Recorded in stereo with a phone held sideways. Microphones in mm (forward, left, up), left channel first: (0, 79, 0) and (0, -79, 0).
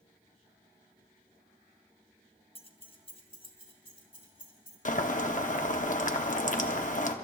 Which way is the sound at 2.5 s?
35° left (ahead or behind).